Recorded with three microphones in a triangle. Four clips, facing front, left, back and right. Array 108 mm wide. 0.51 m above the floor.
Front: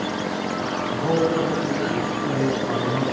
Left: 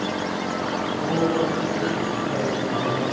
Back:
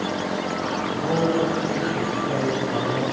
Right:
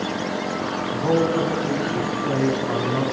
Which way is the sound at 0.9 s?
50° right.